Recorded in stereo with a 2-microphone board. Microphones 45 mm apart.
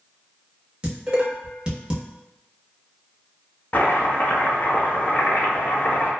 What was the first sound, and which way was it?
Dishes clattering, 25° right (ahead or behind).